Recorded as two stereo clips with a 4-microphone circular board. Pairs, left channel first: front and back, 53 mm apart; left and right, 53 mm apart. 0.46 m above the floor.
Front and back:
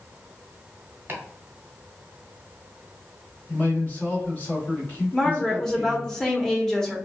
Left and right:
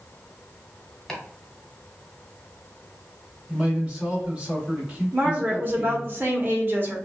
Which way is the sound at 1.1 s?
170° left.